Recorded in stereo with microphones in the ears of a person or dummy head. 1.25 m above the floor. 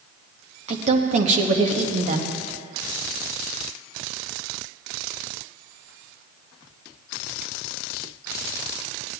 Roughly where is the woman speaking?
Right.